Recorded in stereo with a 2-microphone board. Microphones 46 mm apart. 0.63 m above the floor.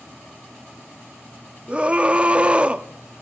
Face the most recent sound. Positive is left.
turn(degrees=-25)  # may be behind; listen again after turning